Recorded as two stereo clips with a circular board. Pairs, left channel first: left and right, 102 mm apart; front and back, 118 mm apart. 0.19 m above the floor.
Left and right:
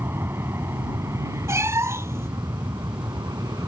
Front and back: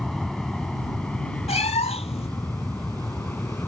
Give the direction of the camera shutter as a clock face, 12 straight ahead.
I don't hear a camera shutter.